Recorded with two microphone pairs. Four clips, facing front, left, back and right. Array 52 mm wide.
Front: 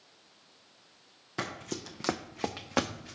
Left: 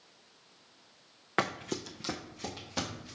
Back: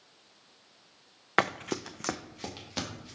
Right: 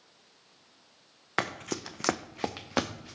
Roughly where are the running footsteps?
Behind.